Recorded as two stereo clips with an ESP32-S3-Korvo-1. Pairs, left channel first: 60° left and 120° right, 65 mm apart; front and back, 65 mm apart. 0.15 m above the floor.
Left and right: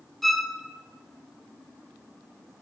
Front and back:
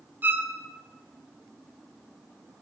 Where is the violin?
145° left, 0.6 m.